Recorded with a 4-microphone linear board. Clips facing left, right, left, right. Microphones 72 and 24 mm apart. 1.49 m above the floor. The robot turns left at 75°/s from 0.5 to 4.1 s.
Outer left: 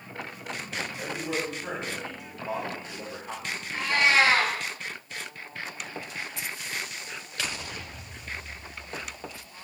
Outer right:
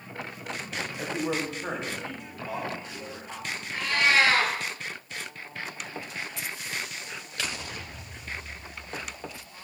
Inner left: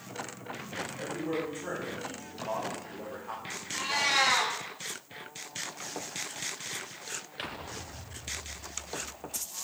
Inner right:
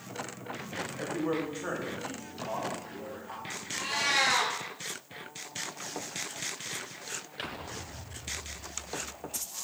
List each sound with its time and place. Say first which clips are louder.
1.0 s a man speaking: outer right 3 dB, inner right 3 dB; 95° right, 1.3 m; by 4.2 s 35° left, 1.3 m
3.7 s a cat meowing: outer left 1 dB, inner left 1 dB; 20° left (ahead or behind), 1.4 m; by 4.5 s 25° left (ahead or behind), 1.4 m